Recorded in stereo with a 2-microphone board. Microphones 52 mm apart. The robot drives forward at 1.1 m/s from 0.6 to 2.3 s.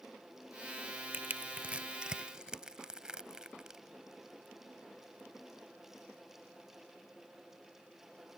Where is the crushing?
35° right (ahead or behind); by 3.8 s 15° right (ahead or behind).